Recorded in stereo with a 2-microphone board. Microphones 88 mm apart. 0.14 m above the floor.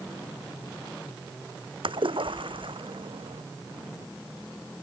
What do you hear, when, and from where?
1.8 s a splash: 70° right (ahead or behind)